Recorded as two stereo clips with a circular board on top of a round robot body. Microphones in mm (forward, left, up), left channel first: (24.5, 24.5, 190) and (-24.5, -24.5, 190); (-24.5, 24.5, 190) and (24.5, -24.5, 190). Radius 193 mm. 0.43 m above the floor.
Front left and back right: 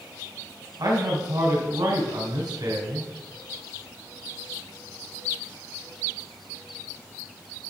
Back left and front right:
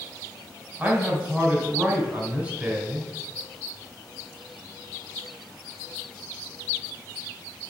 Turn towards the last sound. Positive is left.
turn(degrees=-115)